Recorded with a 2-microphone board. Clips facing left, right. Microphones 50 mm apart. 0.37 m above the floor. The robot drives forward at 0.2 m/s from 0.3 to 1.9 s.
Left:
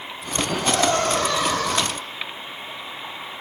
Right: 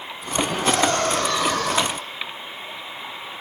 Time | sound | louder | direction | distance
0.5 | laughter | left 1 dB | 10° left (ahead or behind) | 9.5 m